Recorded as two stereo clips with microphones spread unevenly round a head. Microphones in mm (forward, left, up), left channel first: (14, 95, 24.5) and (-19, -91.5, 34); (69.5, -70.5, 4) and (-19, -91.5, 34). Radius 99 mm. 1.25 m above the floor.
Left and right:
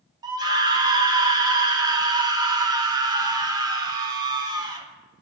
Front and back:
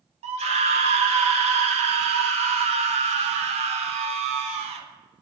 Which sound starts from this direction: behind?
A scream, at 0.2 s.